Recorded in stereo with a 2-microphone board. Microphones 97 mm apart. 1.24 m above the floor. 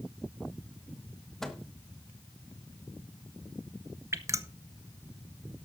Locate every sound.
1.4 s a microwave: 5° left (ahead or behind), 1.2 m
4.1 s dripping: 30° right (ahead or behind), 0.7 m